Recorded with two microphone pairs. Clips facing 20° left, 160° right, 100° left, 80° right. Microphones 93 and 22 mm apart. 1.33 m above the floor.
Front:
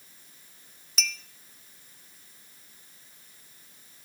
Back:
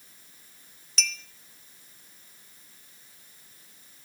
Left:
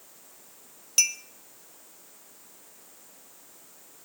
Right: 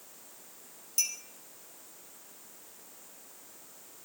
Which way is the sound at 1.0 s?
105° left.